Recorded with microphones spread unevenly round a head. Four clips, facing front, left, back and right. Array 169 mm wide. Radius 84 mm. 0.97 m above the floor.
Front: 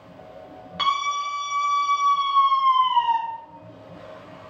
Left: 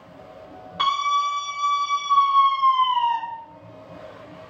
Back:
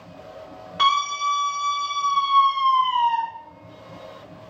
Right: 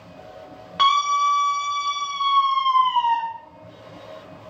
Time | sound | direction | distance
0.8 | a scream | 85° right | 2 m